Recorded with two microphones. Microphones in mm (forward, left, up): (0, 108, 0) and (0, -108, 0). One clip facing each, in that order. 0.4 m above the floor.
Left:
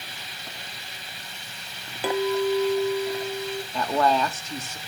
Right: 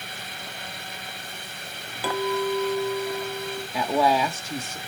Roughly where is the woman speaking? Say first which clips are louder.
Right 1 dB; centre.